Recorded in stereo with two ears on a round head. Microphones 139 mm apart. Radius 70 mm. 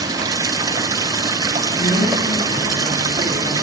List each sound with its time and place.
0.0 s running water: 25° right (ahead or behind), 2 m
1.8 s a woman speaking: 45° left (ahead or behind), 9.5 m